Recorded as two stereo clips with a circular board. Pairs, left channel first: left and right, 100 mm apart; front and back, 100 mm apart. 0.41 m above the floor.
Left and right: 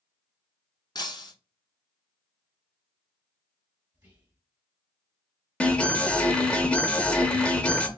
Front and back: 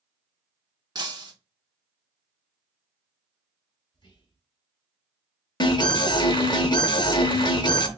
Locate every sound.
0.9 s breaking glass: 135° left, 0.9 m
3.9 s whispering: 30° right, 1.9 m
5.6 s an alarm: 15° left, 0.7 m